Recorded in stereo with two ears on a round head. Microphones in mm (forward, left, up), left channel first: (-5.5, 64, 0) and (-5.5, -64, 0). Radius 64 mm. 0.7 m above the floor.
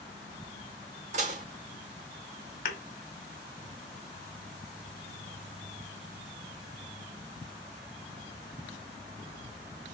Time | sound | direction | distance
1.1 | dishes clattering | 55° right (ahead or behind) | 1.5 m
2.6 | a thud | 65° left (ahead or behind) | 1.5 m